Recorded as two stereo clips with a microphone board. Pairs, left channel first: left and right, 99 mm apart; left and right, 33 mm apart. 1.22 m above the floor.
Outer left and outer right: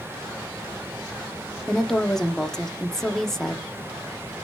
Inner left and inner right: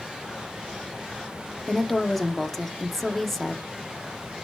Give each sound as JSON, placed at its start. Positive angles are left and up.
{"t": 1.7, "sound": "a woman speaking", "side_deg": 5, "distance_m": 0.7}